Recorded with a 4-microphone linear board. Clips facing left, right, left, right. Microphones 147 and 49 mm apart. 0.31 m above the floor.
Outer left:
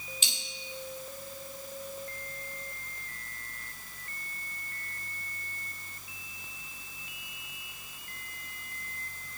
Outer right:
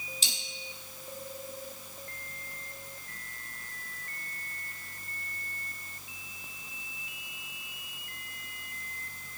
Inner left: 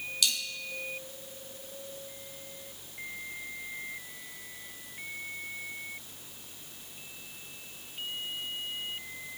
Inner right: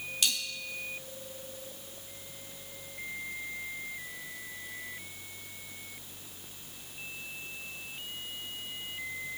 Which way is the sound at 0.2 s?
35° right (ahead or behind).